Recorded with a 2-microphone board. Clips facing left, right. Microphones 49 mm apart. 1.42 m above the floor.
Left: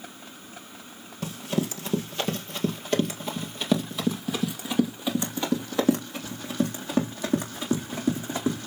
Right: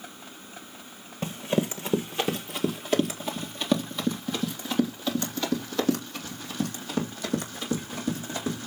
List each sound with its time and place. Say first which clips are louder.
1.2 s running footsteps: right 2 dB; 30° right (ahead or behind), 1.7 m; by 8.7 s 30° left (ahead or behind), 4.5 m